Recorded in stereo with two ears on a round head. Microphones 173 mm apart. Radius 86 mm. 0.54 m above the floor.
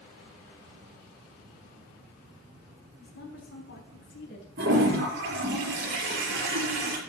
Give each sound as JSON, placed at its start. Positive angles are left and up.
{"t": 3.0, "sound": "a woman speaking", "side_deg": 65, "distance_m": 4.5}
{"t": 4.6, "sound": "a toilet flushing", "side_deg": -55, "distance_m": 6.0}